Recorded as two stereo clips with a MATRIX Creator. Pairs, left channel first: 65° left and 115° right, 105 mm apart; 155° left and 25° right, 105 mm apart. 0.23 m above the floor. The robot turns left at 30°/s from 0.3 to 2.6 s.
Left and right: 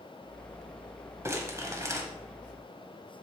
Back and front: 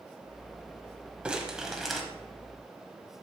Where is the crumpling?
90° right, 1.2 m; by 2.0 s 115° right, 1.2 m.